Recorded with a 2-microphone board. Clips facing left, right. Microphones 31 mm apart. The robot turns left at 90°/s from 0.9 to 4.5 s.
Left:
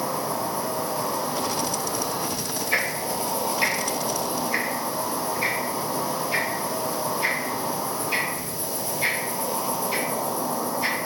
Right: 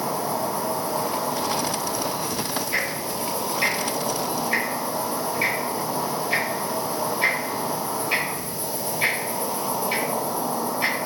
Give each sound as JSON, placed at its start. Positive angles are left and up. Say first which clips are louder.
{"t": 0.0, "sound": "an insect", "louder": "right 1 dB", "azimuth_deg": -75, "distance_m": 1.8}
{"t": 2.7, "sound": "ticking", "louder": "left 4 dB", "side_deg": 75, "distance_m": 0.9}